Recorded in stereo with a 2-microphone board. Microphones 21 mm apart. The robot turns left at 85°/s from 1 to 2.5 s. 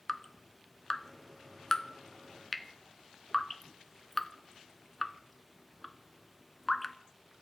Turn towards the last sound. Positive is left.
turn(degrees=5)  # may be behind; listen again after turning